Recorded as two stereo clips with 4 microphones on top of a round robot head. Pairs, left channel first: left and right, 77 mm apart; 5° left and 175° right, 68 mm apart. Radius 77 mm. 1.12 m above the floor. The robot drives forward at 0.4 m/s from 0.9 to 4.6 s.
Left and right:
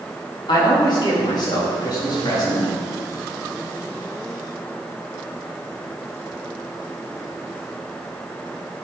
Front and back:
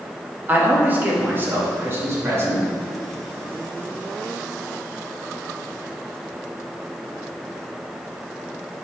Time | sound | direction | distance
0.5 | a man speaking | 120° left | 2 m